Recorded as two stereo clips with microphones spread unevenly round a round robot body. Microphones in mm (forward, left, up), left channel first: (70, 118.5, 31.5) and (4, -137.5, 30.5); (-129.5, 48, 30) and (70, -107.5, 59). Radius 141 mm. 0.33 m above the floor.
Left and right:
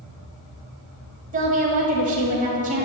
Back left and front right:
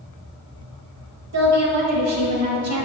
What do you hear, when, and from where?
1.3 s a woman speaking: 45° right, 1.7 m